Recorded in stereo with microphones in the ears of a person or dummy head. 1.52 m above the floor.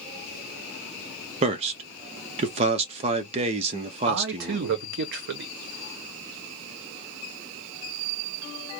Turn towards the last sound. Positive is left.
turn(degrees=-60)  # may be behind; listen again after turning